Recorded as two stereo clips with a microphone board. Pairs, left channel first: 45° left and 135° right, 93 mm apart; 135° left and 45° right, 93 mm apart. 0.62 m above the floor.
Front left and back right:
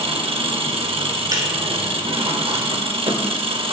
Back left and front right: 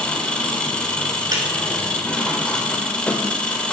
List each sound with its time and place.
0.0 s an engine running: 145° right, 0.7 m
1.3 s breaking glass: 90° right, 1.2 m